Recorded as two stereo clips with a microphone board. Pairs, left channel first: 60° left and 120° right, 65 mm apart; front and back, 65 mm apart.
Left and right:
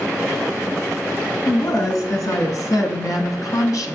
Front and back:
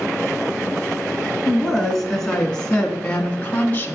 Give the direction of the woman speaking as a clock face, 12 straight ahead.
9 o'clock.